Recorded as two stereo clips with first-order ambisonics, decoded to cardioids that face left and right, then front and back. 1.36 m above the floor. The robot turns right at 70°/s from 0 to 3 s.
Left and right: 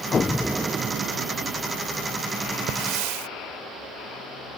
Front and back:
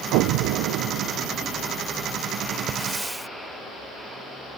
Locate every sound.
0.1 s an explosion: 155° left; by 1.6 s 105° right
2.7 s a hiss: 120° right; by 3.3 s 95° right